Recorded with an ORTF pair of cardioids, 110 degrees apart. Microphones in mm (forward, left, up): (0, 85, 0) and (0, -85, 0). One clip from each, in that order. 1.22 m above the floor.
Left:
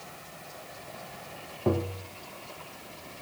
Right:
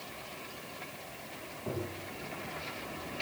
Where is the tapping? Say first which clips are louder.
Left 10 dB; 65° left, 1.1 m.